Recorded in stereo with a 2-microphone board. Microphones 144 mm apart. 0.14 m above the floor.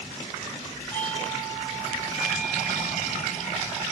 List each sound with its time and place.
0.9 s a doorbell: 10° left (ahead or behind), 5 m